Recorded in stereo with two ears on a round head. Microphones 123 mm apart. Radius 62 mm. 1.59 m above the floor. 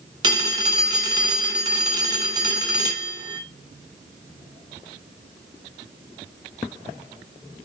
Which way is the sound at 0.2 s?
30° right (ahead or behind).